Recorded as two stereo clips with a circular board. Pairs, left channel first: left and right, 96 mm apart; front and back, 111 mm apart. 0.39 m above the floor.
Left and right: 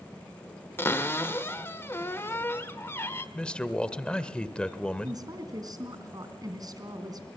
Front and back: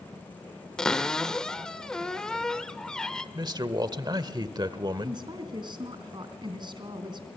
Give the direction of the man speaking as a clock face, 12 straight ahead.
7 o'clock.